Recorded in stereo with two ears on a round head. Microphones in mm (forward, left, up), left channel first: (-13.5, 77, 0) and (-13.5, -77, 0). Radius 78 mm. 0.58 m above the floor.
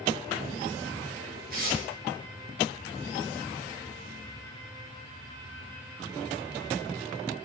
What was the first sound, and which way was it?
Tearing paper, 50° right (ahead or behind).